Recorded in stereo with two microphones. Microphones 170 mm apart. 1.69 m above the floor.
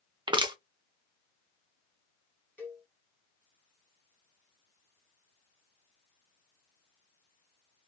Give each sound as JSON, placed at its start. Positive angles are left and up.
{"t": 0.3, "sound": "crushing", "side_deg": -25, "distance_m": 0.8}
{"t": 2.6, "sound": "a cowbell", "side_deg": 10, "distance_m": 1.3}